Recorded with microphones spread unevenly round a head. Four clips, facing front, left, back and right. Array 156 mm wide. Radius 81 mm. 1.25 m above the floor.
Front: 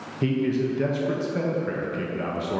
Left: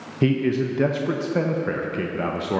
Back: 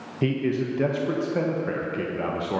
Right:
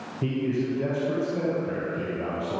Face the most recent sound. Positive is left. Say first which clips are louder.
# left 6 dB, front 1 dB
turn(degrees=110)